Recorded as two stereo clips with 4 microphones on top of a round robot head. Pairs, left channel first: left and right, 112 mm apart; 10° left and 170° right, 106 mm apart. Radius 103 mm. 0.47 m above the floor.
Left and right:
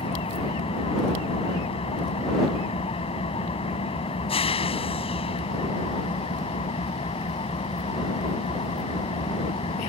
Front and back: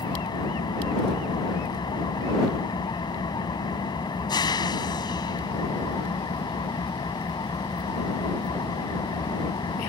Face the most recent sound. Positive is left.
turn(degrees=55)